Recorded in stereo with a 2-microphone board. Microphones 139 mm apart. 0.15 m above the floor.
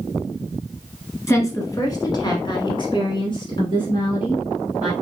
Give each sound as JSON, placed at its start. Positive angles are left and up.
{"t": 1.3, "sound": "a woman speaking", "side_deg": 20, "distance_m": 1.5}